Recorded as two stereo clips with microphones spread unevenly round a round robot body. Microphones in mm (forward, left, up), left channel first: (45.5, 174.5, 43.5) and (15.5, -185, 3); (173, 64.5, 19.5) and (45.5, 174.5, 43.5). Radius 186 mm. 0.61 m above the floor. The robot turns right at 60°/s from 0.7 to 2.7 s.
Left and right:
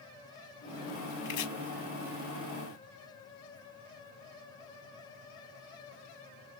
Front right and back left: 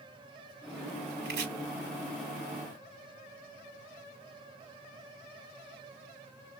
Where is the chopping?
120° left, 0.8 m; by 1.5 s 135° left, 0.8 m.